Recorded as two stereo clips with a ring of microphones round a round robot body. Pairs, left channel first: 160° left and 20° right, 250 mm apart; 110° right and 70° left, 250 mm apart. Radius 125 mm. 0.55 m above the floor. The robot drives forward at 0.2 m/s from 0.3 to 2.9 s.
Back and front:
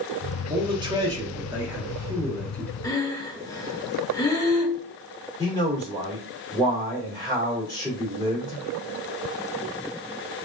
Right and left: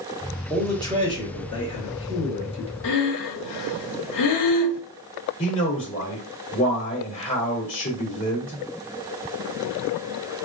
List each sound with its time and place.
0.5 s a man speaking: 55° right, 0.9 m; by 2.7 s 130° right, 0.9 m
2.8 s breathing: 125° right, 0.5 m
5.4 s a man speaking: 130° right, 1.7 m